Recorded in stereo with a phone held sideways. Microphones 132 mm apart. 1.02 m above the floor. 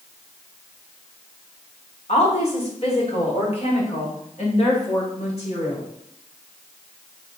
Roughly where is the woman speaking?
Left.